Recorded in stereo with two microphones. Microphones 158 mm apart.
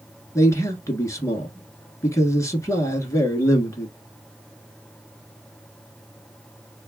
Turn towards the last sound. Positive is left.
turn(degrees=20)  # may be behind; listen again after turning